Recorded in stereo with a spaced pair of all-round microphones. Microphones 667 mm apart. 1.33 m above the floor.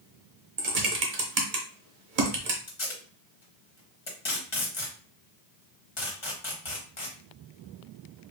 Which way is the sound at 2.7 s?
45° left (ahead or behind).